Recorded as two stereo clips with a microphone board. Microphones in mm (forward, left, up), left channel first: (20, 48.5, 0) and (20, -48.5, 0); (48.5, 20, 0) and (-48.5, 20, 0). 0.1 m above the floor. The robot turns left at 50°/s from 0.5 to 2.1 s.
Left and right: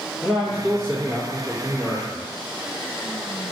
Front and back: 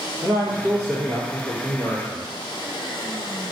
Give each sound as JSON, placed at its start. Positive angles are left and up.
{"t": 0.2, "sound": "a man speaking", "azimuth_deg": 25, "distance_m": 1.7}